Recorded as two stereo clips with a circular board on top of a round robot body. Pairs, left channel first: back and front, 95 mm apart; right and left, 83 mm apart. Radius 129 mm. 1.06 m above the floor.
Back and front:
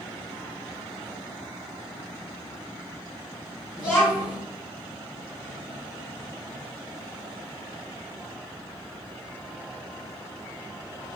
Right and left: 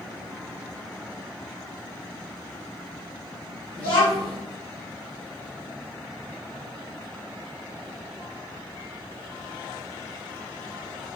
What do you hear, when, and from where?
3.8 s a child speaking: 110° right, 1.4 m